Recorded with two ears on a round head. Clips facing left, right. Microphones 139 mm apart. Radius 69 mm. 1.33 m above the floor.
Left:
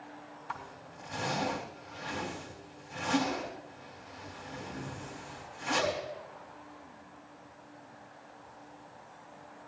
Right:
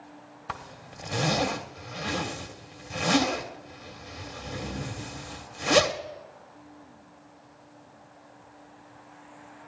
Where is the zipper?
70° right (ahead or behind), 1.8 m.